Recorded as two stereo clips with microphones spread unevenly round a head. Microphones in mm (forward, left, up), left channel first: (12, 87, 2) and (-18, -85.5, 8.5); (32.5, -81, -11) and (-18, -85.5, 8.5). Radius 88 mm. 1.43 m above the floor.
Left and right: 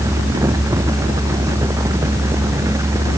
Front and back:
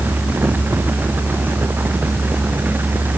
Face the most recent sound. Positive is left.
No sound to turn to.